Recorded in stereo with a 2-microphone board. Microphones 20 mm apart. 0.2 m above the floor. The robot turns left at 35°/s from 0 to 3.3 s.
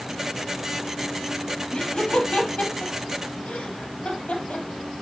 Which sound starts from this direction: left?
Laughter, at 1.7 s.